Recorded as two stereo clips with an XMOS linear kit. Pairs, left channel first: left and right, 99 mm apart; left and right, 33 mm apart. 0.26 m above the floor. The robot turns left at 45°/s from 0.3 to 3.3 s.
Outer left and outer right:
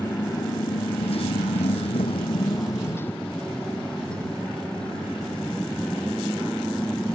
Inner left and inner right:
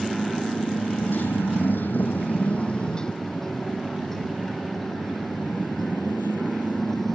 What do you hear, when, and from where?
0.0 s a motorcycle: 145° left; by 7.2 s 10° left